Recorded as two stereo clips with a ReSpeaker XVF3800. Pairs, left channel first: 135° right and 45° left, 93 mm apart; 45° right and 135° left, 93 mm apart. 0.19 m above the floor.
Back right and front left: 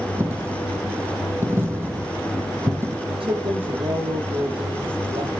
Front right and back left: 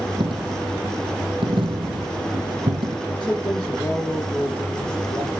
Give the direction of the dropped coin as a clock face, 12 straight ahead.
8 o'clock.